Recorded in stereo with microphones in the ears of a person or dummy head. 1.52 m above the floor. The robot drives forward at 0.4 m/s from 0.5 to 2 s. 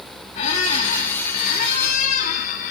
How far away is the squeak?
About 1.6 m.